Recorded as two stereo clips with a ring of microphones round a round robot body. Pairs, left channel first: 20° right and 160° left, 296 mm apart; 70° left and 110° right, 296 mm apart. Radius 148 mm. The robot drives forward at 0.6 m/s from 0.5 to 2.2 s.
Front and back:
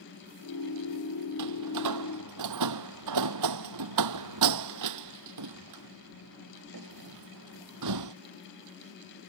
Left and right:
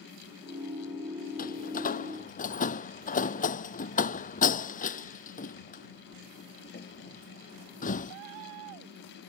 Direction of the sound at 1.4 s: 130° left.